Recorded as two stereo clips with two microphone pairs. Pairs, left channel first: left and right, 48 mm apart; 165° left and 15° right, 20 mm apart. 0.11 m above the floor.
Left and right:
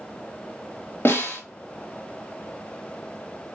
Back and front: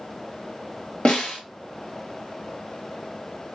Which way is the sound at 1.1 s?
135° left.